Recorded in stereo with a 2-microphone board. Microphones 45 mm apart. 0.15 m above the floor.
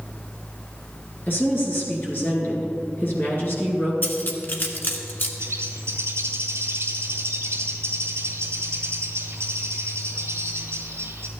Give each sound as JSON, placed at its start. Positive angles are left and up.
{"t": 1.3, "sound": "a woman speaking", "side_deg": 45, "distance_m": 2.5}
{"t": 4.0, "sound": "cutlery clinking", "side_deg": 45, "distance_m": 1.2}
{"t": 5.4, "sound": "a bird", "side_deg": -80, "distance_m": 1.1}